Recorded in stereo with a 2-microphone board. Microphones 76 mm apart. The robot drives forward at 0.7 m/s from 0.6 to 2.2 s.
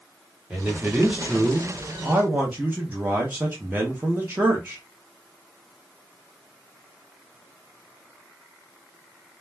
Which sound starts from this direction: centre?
A man speaking, at 0.5 s.